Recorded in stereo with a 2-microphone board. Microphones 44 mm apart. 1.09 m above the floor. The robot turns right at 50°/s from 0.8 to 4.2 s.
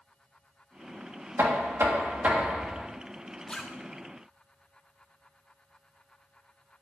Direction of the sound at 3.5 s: 25° left (ahead or behind).